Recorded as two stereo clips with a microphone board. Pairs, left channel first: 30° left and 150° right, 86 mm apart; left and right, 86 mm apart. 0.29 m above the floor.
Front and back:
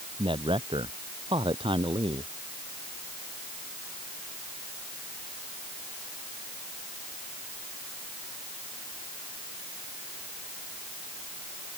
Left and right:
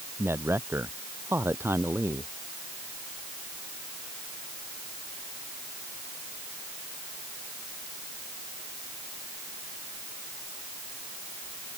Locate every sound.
0.2 s a man speaking: 155° right